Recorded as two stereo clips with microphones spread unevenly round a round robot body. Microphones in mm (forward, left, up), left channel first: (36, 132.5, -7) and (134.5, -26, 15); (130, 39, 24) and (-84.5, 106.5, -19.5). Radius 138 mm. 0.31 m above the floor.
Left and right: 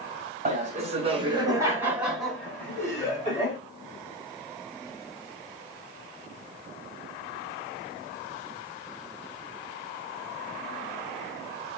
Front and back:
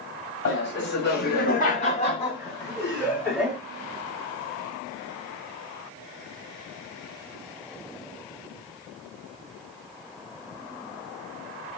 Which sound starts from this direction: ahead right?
Laughter, at 0.5 s.